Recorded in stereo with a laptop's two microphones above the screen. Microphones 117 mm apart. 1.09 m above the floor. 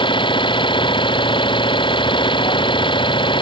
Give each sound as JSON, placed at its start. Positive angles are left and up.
{"t": 0.0, "sound": "an engine running", "side_deg": 45}